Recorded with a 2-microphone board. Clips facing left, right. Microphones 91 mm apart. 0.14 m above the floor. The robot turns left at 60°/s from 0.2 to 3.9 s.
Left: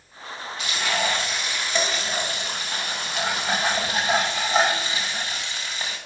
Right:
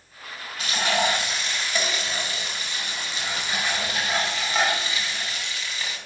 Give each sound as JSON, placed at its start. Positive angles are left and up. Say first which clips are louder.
{"t": 0.6, "sound": "frying", "louder": "right 2 dB", "azimuth_deg": -135, "distance_m": 6.0}